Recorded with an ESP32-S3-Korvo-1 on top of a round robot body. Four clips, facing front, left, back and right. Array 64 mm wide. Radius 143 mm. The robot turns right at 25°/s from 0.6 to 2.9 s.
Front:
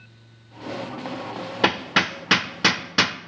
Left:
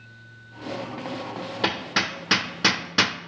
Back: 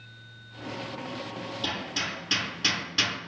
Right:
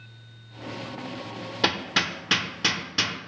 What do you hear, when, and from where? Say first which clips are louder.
1.6 s hammering: even, front 13 dB; straight ahead, 0.6 m; by 3.2 s 30° left, 0.6 m